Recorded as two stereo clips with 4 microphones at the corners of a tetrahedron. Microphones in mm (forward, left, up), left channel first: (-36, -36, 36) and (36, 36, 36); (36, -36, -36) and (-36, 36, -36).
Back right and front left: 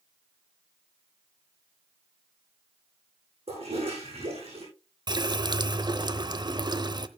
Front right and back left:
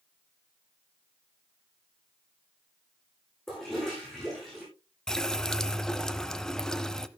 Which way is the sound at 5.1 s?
35° left.